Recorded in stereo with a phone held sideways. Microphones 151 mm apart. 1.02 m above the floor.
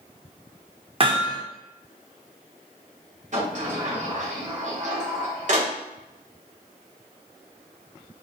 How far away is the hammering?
About 0.7 m.